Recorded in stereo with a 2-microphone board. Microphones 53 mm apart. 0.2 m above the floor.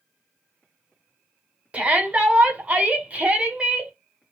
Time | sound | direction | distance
1.7 | a shout | 30° right (ahead or behind) | 1.3 m